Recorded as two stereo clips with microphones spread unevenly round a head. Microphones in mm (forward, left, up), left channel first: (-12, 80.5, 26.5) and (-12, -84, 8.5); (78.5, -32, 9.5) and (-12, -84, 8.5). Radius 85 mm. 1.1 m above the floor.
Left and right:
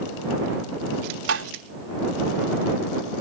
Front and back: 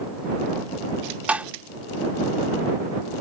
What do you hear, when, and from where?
1.3 s tapping: 75° right